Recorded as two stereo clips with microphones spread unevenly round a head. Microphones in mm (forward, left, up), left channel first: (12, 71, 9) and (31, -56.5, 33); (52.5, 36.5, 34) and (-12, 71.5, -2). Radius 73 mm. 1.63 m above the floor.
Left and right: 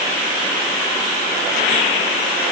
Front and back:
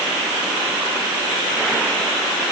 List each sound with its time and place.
Only background noise.